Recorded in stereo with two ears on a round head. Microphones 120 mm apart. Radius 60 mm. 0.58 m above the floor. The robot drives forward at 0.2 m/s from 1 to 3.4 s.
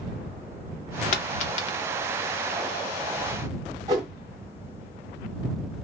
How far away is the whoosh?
About 1.2 m.